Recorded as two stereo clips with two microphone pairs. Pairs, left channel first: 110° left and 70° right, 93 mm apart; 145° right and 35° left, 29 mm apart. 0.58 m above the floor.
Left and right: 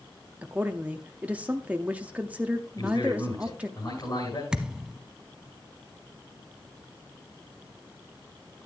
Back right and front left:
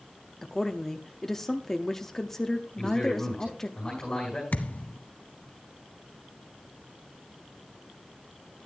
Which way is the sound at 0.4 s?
110° right.